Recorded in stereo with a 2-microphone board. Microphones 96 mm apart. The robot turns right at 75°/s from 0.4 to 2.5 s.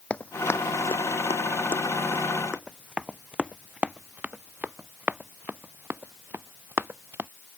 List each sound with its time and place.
0.1 s running footsteps: 15° left (ahead or behind); by 7.3 s 20° right (ahead or behind)